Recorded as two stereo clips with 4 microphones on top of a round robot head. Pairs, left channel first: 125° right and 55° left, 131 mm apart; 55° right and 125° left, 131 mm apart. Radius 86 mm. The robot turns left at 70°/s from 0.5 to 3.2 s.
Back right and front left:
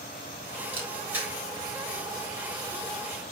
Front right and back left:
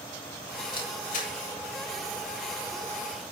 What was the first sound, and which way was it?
A camera shutter, 5° left.